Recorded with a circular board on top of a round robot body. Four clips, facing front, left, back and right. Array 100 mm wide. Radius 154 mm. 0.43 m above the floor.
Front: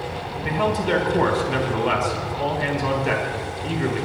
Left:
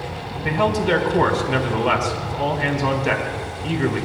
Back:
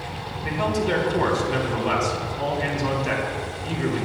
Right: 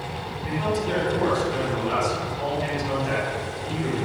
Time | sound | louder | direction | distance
0.4 | a man speaking | left 6 dB, front 2 dB | 80° left | 4 m